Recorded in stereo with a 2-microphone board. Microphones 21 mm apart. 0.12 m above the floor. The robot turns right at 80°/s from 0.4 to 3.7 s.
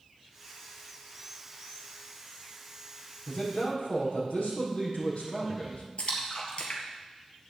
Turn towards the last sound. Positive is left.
turn(degrees=55)  # may be behind; listen again after turning